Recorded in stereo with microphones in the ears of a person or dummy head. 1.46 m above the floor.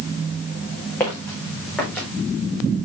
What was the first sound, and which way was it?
Footsteps, 10° left (ahead or behind).